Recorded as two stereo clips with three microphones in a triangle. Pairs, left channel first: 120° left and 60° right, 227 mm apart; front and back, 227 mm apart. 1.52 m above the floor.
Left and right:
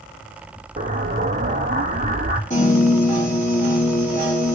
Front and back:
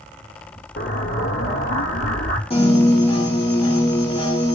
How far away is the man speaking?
I don't hear a man speaking.